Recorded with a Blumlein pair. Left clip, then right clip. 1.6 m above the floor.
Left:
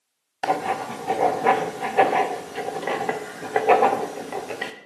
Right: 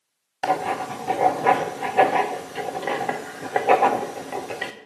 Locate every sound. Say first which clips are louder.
0.4 s writing: even; straight ahead, 0.8 m